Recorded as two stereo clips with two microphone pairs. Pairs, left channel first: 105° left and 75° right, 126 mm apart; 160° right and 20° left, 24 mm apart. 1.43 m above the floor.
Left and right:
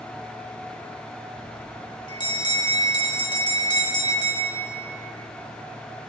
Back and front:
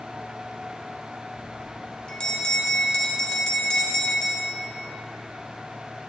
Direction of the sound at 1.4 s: 155° left.